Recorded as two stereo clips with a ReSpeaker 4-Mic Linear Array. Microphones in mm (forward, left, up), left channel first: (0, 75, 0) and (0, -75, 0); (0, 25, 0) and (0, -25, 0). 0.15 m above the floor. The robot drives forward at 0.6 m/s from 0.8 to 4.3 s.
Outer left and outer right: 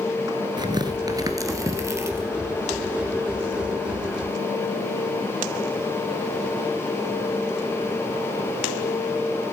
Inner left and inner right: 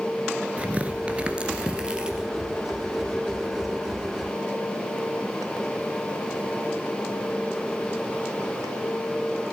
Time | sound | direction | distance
0.6 | tearing paper | 30° right (ahead or behind) | 1.3 m